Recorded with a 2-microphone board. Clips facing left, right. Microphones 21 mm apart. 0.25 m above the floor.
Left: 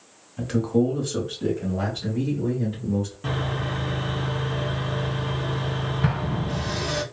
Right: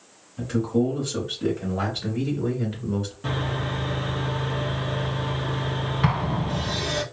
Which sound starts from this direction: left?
A man speaking, at 0.4 s.